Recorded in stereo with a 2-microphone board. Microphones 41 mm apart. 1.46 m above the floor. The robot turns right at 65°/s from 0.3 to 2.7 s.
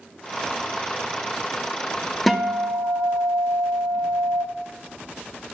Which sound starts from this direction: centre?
A guitar, at 2.3 s.